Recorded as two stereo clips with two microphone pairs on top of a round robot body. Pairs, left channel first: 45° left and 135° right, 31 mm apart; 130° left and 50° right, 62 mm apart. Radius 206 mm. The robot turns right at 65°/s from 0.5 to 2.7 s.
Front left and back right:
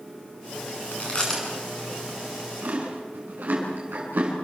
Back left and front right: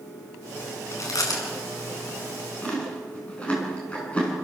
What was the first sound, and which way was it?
Chewing, 85° left.